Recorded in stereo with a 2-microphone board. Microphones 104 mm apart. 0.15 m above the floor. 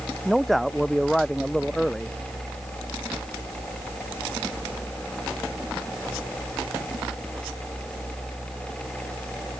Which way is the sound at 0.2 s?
Centre (ahead or behind).